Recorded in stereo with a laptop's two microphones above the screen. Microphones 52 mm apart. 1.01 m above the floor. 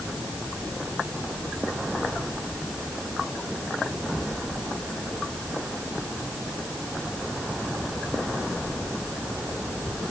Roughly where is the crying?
I don't hear crying.